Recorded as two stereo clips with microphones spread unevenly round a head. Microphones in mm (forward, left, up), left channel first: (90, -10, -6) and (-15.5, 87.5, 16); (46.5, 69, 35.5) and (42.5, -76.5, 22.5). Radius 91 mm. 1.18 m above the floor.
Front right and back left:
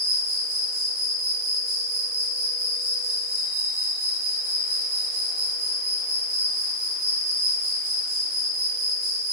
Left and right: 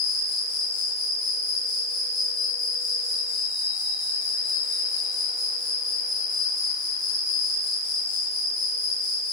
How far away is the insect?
About 0.9 m.